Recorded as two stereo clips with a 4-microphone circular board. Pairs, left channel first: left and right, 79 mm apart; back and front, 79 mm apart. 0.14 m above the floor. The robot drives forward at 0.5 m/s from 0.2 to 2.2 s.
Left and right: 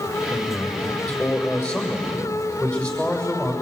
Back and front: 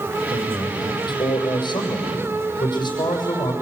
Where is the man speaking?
155° left, 5.5 m; by 3.5 s 160° left, 6.5 m.